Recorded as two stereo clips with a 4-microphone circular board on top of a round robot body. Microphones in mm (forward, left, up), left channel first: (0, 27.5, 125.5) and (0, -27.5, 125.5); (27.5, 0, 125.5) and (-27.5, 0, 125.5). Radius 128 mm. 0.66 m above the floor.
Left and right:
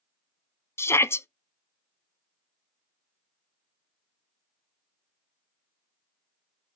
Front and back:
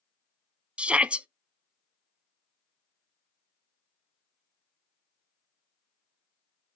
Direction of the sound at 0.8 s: 115° left.